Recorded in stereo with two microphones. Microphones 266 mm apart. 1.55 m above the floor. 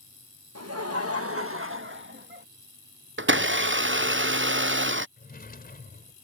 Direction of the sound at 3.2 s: 45° right (ahead or behind).